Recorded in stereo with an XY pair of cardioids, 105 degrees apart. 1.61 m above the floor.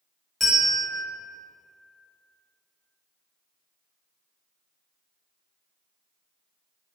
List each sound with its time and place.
0.4 s a bell: 10° left, 1.1 m